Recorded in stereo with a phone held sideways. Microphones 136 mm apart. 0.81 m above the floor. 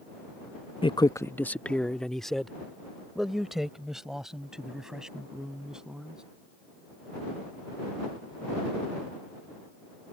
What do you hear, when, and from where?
0.8 s a man speaking: 40° left (ahead or behind); by 6.2 s 5° right (ahead or behind)